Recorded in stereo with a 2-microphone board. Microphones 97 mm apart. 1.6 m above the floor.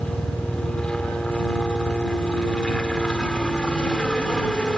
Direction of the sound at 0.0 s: 10° left (ahead or behind).